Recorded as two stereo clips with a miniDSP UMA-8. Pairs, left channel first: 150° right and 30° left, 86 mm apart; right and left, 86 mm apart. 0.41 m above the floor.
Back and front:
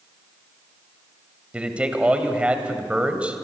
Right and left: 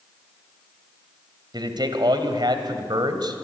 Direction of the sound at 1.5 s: 105° left.